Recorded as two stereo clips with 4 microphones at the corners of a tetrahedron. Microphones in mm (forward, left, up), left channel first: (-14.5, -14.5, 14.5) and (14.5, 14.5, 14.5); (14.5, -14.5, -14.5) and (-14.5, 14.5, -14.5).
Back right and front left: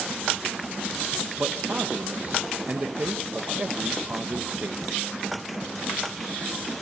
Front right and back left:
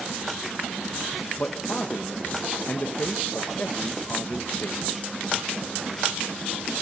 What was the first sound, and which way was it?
A man speaking, straight ahead.